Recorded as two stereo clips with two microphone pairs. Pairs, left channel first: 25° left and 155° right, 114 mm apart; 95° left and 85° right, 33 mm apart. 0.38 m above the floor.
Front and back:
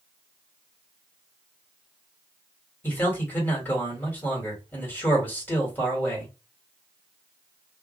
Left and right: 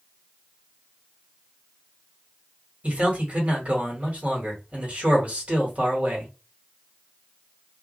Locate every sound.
2.8 s a man speaking: 45° right, 1.6 m